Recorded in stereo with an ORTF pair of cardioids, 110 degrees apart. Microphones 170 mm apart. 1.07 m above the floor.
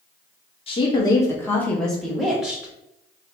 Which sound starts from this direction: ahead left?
A woman speaking, at 0.7 s.